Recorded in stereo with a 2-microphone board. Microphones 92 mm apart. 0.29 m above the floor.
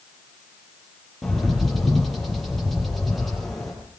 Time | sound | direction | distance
1.2 | a bird | centre (ahead or behind) | 7 m